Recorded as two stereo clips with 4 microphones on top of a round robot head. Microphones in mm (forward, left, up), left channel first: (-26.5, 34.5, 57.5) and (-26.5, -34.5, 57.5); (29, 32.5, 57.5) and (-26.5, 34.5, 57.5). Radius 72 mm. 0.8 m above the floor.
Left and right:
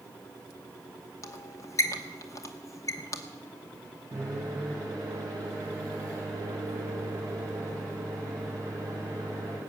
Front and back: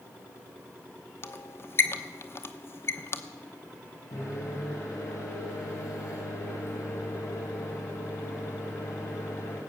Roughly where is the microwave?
Ahead right.